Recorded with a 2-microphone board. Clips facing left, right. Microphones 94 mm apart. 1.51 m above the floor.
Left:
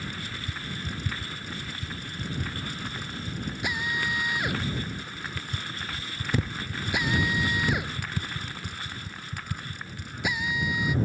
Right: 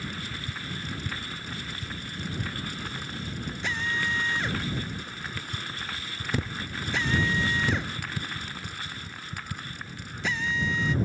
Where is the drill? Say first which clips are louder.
Right 1 dB; 10° left (ahead or behind).